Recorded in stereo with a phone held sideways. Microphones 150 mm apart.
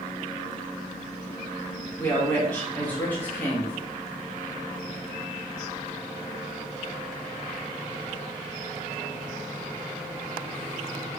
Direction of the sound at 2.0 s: 10° left (ahead or behind).